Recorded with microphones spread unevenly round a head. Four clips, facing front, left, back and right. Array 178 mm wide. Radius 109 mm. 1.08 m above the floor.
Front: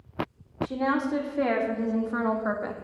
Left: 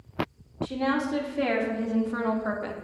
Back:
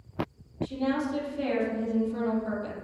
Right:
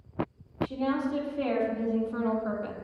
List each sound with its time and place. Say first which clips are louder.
0.6 s a woman speaking: left 2 dB, front 2 dB; 30° left, 3 m